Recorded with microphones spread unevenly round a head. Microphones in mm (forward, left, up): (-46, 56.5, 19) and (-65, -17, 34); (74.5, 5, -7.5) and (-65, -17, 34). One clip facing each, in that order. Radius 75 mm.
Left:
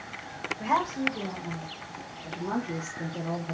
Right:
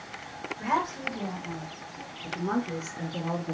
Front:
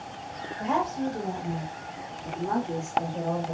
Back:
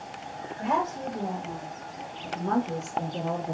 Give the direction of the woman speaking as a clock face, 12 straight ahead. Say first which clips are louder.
Left 2 dB, front 1 dB; 6 o'clock.